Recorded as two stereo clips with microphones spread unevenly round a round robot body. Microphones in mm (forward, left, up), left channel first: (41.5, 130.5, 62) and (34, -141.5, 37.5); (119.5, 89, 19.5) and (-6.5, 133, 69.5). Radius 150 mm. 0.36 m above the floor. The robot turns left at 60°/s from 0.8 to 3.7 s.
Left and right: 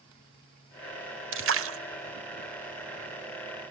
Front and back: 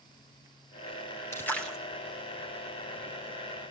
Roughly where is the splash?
Right.